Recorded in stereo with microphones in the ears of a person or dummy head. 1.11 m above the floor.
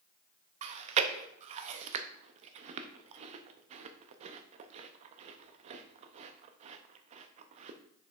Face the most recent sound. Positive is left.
turn(degrees=-40)  # may be behind; listen again after turning